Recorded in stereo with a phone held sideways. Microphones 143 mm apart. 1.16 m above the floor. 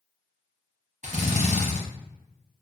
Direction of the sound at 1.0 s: 60° right (ahead or behind).